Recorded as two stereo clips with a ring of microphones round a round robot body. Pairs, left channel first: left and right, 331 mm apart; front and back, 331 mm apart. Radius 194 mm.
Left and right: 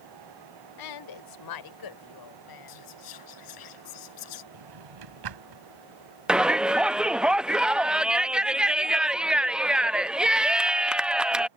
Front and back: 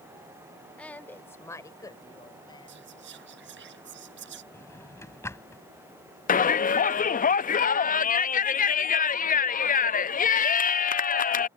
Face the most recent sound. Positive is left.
turn(degrees=-5)